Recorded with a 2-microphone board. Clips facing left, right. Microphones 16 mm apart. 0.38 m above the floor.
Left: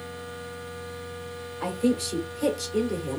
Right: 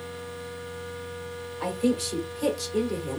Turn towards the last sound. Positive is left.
turn(degrees=0)  # may be behind; listen again after turning